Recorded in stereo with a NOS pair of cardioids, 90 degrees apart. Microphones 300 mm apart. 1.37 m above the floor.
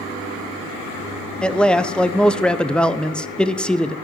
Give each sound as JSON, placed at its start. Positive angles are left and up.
{"t": 1.4, "sound": "a man speaking", "azimuth_deg": 5, "distance_m": 0.6}